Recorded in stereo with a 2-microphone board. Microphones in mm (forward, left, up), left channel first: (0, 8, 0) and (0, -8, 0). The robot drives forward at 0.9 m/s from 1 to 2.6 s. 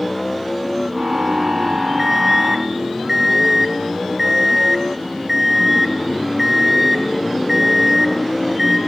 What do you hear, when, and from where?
2.0 s an alarm clock: 15° right (ahead or behind), 0.8 m; by 8.8 s 20° right (ahead or behind), 0.6 m